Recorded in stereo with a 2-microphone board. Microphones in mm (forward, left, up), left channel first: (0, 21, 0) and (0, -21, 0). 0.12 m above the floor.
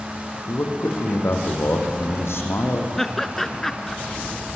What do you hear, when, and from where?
0.5 s a man speaking: 80° left, 5 m
3.0 s laughter: 5° left (ahead or behind), 1.3 m